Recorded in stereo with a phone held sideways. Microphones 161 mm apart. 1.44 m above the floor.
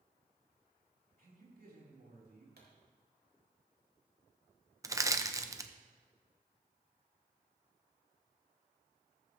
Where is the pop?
75° right (ahead or behind), 3.5 m.